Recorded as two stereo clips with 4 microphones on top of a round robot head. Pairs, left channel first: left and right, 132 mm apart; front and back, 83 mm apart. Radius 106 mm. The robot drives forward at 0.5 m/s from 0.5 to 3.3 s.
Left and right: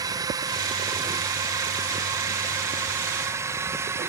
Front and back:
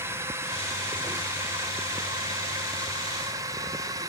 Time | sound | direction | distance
0.0 | a drone | 140° right | ?